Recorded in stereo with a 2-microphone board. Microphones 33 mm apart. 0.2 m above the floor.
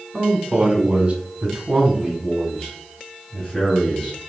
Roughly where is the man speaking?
Right.